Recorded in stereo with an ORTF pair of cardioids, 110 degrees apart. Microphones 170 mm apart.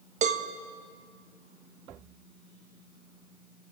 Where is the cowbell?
50° right, 1.5 m.